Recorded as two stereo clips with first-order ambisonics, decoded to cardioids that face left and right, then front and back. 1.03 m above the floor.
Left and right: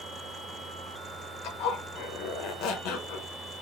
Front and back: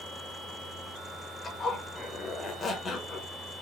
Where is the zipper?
65° left, 0.7 m.